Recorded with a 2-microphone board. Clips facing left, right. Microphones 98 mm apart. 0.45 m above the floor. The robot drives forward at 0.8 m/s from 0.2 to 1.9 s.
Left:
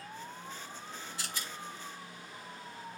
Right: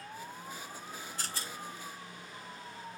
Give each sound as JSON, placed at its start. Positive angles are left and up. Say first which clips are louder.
{"t": 1.2, "sound": "a rattle", "louder": "right 1 dB", "side_deg": -45}